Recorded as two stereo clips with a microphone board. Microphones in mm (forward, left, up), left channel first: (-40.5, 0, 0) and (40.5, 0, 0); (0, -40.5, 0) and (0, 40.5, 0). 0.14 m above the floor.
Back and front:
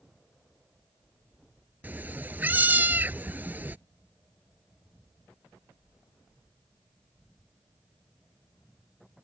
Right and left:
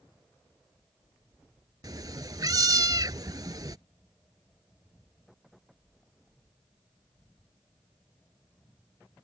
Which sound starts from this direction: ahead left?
A cat meowing, at 1.8 s.